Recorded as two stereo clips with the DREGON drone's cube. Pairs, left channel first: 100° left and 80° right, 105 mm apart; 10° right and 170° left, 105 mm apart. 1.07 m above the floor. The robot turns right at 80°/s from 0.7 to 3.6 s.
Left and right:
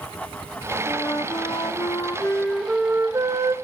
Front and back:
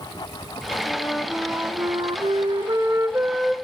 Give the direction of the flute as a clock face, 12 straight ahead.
10 o'clock.